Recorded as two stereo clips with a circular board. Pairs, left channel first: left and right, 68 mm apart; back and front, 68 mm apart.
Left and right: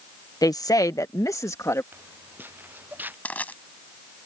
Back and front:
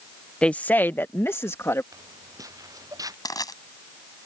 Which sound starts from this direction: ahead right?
Footsteps, at 1.9 s.